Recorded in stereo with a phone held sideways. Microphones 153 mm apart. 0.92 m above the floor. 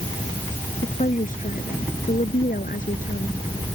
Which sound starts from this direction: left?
A woman speaking, at 0.8 s.